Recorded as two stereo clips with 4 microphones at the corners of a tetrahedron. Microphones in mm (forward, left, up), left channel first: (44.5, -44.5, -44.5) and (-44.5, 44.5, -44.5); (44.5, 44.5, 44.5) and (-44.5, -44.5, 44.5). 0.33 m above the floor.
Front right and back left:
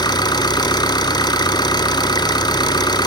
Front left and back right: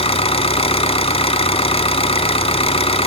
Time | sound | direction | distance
0.0 | an engine running | 10° left | 0.9 m